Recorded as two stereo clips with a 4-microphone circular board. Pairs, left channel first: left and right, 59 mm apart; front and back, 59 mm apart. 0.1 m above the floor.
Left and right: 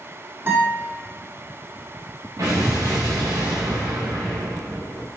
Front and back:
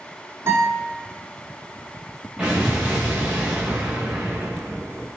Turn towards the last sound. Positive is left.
turn(degrees=-105)